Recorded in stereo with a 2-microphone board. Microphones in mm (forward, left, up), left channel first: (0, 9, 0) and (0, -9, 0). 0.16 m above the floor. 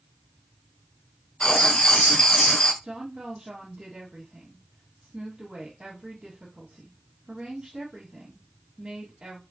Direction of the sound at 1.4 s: 50° left (ahead or behind).